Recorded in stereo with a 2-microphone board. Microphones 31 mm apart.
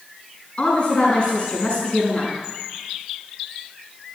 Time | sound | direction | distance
0.6 | a woman speaking | 35° left (ahead or behind) | 5.5 m